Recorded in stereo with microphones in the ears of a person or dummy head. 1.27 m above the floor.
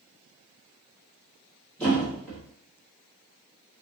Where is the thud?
10° left (ahead or behind), 1.3 m.